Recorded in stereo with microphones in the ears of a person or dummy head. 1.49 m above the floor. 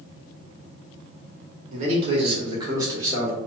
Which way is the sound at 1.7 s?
45° right (ahead or behind).